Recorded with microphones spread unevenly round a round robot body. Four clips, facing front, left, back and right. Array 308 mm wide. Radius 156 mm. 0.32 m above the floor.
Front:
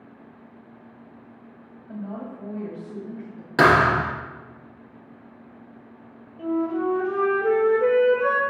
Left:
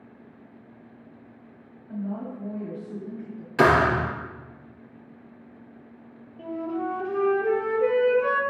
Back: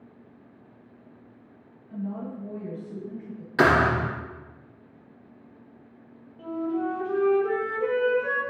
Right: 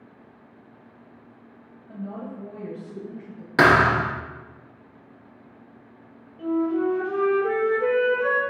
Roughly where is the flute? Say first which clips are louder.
Right 7 dB, front 4 dB; ahead.